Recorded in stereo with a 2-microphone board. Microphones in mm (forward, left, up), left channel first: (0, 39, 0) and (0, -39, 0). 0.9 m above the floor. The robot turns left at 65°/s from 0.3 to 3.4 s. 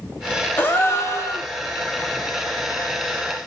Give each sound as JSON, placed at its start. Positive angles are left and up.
{"t": 0.6, "sound": "a gasp", "azimuth_deg": 140, "distance_m": 0.6}